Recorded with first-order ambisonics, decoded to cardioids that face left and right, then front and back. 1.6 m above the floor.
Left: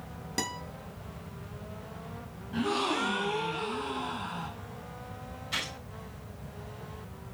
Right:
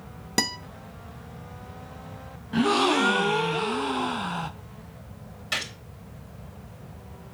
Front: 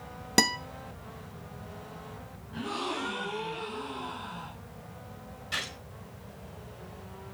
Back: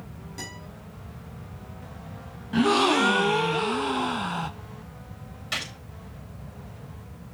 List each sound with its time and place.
0.4 s a guitar: 30° right, 0.8 m
2.5 s a gasp: 145° right, 0.6 m
5.5 s a gunshot: 125° right, 3.5 m